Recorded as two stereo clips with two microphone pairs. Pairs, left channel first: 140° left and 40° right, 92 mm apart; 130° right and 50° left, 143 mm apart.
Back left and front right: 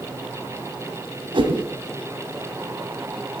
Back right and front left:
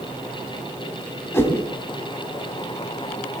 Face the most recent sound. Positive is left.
turn(degrees=-60)